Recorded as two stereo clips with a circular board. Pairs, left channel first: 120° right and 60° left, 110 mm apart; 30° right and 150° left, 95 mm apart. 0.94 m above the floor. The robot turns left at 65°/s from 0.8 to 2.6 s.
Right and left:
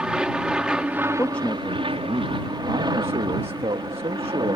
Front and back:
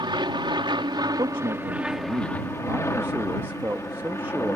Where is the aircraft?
140° left; by 4.6 s 25° left.